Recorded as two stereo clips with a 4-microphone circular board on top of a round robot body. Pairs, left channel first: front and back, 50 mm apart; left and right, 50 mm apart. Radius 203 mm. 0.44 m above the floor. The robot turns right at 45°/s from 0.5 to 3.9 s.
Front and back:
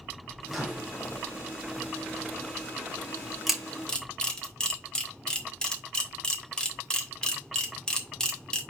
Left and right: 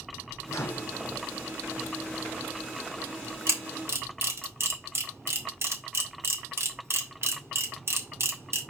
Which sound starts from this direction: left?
A microwave, at 0.5 s.